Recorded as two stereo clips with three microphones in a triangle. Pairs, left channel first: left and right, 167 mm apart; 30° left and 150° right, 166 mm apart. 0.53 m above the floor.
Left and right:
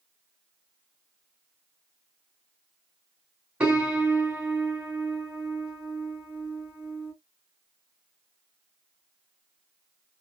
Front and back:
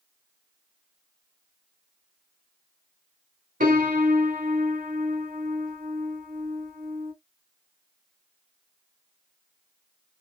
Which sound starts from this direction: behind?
A piano, at 3.6 s.